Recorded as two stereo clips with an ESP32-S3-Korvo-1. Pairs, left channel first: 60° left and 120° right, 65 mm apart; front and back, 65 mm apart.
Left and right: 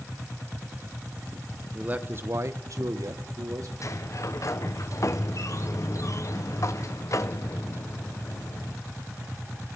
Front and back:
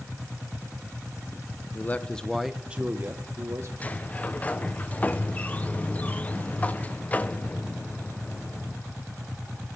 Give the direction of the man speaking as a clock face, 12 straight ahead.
2 o'clock.